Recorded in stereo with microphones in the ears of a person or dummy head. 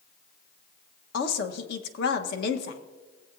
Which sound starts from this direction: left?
A woman speaking, at 1.1 s.